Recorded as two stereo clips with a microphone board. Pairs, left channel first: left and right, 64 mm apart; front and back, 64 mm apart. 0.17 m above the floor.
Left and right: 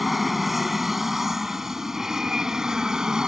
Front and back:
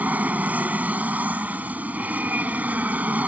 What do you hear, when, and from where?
0.0 s an aircraft: 175° right; by 3.3 s 155° right